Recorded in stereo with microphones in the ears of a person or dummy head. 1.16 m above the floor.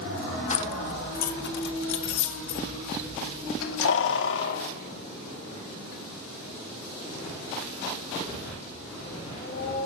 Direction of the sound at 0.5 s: 35° left (ahead or behind).